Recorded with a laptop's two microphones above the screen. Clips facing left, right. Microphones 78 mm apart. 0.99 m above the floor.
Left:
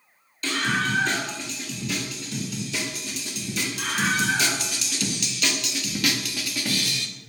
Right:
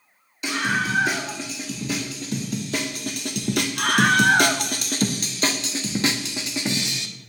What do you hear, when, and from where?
0.4 s a scream: 25° right (ahead or behind), 2 m; by 7.1 s 20° right (ahead or behind), 2 m